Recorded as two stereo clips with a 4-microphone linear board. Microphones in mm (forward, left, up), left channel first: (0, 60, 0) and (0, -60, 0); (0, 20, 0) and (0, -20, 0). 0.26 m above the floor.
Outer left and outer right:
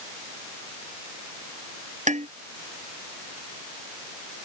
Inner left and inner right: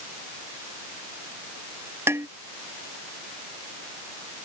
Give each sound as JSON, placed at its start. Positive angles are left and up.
{"t": 2.1, "sound": "dishes clattering", "side_deg": -75}